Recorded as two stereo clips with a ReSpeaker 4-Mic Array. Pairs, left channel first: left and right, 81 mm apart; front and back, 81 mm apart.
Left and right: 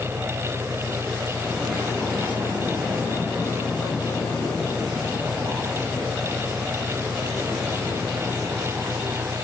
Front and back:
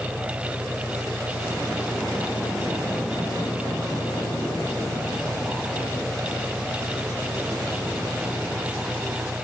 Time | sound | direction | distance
0.0 | an engine running | 5° left | ?